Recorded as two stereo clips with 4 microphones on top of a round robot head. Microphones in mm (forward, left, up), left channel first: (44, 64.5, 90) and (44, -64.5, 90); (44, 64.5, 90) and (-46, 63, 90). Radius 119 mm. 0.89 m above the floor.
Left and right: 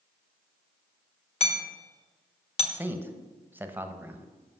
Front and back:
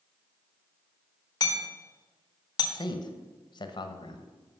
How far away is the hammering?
About 1.2 m.